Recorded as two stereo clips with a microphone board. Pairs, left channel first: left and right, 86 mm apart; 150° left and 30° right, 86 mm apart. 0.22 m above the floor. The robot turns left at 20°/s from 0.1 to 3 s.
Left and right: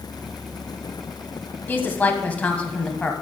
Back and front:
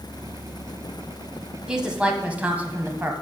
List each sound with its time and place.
1.7 s a woman speaking: 45° left, 1.1 m; by 3.1 s 15° left, 1.1 m